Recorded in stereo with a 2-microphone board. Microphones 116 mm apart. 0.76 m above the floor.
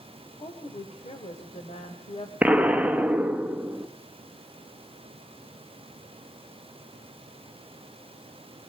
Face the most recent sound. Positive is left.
turn(degrees=-10)  # may be behind; listen again after turning